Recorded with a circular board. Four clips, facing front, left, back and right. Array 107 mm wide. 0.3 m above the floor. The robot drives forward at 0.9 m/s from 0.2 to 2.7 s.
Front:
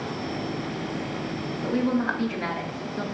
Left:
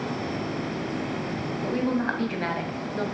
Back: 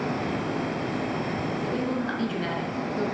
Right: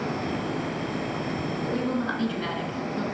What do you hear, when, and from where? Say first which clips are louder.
1.6 s a woman speaking: left 3 dB, front 7 dB; 40° left, 1.8 m; by 3.0 s 75° left, 1.3 m